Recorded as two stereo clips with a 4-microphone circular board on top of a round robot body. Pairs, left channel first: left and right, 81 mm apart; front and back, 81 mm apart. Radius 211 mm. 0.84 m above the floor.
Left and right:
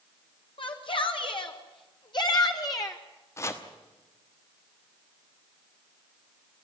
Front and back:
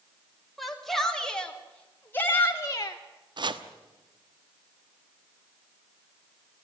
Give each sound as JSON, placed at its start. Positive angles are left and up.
{"t": 0.6, "sound": "a shout", "azimuth_deg": 90, "distance_m": 2.5}
{"t": 3.4, "sound": "chopping", "azimuth_deg": 150, "distance_m": 1.2}